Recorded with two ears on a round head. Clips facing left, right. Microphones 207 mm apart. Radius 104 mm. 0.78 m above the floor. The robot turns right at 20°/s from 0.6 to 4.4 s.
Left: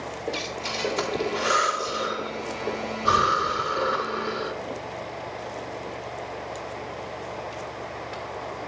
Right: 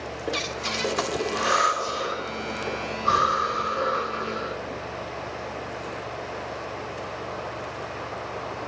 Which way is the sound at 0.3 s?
15° right (ahead or behind).